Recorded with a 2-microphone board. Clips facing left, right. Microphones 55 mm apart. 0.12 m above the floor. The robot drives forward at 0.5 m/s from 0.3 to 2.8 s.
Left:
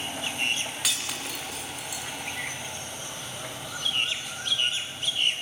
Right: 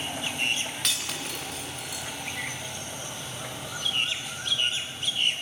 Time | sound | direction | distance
0.8 | breaking glass | 5° left (ahead or behind) | 4.5 m